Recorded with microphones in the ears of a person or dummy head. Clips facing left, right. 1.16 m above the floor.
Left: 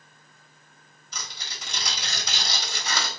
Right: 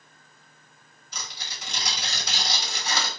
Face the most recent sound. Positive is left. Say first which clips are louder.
# even
turn(degrees=70)  # may be behind; listen again after turning